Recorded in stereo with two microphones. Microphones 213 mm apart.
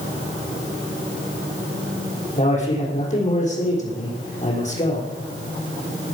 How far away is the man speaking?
About 6 m.